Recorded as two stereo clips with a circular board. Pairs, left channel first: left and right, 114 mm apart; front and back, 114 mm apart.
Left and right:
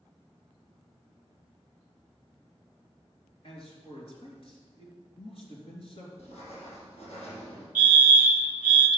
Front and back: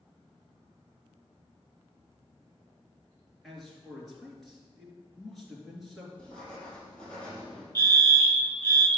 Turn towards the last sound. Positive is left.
turn(degrees=-15)